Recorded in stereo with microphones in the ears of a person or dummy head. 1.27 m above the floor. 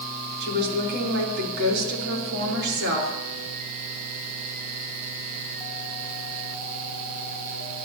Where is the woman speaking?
55° right (ahead or behind), 3.5 m.